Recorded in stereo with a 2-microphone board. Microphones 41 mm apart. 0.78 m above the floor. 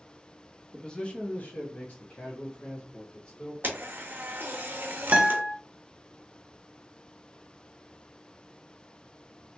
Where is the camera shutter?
50° right (ahead or behind), 0.9 m.